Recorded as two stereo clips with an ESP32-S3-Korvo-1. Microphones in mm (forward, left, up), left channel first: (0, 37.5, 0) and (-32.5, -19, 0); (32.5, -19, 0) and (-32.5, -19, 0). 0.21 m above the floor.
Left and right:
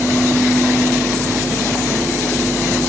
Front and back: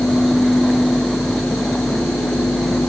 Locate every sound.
Only background noise.